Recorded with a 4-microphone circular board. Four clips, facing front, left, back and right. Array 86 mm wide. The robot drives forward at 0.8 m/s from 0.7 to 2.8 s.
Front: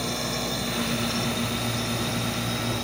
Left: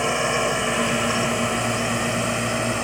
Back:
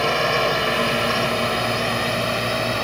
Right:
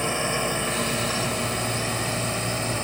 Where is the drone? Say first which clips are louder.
Left 4 dB, back 10 dB; 160° left.